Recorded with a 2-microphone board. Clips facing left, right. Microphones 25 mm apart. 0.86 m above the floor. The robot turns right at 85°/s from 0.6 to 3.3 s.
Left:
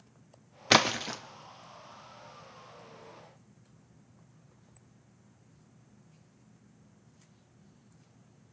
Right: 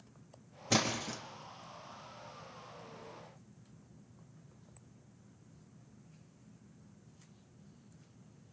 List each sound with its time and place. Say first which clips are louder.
0.7 s a splash: left 8 dB; 75° left (ahead or behind), 0.5 m; by 1.2 s 35° left (ahead or behind), 0.5 m